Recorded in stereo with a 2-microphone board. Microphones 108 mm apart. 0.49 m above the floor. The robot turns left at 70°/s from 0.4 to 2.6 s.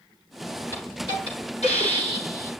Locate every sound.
0.7 s a hiss: 155° left, 9 m; by 2.5 s 30° left, 9 m